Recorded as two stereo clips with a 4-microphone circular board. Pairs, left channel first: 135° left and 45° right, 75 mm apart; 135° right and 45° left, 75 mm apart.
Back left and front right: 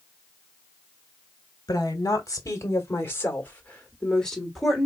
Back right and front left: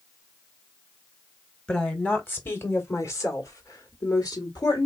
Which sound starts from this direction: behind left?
A woman speaking, at 1.7 s.